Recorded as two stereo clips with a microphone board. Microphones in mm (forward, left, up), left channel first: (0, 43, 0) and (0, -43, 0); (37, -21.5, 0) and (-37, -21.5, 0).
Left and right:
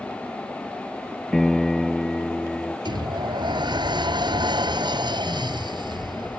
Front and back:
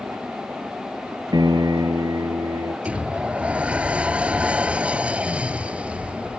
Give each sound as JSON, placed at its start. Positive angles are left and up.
{"t": 1.3, "sound": "a piano", "azimuth_deg": 175}
{"t": 2.9, "sound": "a sliding door", "azimuth_deg": -110}